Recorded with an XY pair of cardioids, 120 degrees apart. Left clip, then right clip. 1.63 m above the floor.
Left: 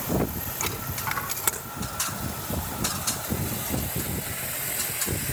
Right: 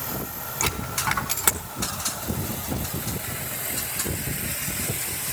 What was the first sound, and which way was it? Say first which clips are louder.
A dropped coin: right 5 dB; 25° right.